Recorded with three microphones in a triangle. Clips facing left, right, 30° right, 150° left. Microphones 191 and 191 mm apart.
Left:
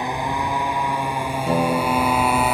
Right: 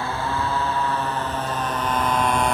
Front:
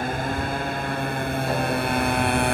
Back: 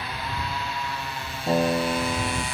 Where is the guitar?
90° left.